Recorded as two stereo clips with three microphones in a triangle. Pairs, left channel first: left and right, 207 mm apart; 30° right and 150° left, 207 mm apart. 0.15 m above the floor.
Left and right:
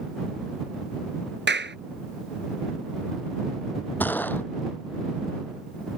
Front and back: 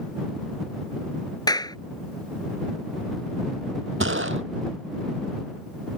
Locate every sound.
1.5 s a clap: 100° right
4.0 s a gunshot: 170° left